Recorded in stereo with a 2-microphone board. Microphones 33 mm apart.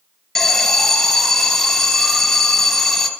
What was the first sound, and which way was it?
An alarm, 5° left (ahead or behind).